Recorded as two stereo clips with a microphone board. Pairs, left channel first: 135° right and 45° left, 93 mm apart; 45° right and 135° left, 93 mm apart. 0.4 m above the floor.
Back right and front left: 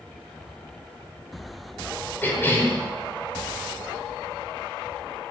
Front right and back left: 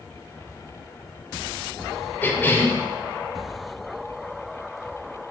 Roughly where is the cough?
Right.